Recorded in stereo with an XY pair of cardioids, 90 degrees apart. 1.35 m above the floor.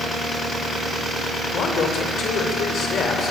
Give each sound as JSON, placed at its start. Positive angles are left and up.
{"t": 1.5, "sound": "a man speaking", "azimuth_deg": 70, "distance_m": 6.0}